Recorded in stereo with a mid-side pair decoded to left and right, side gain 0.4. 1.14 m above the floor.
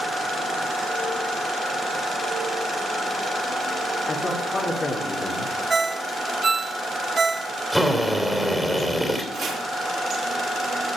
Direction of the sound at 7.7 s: 5° left.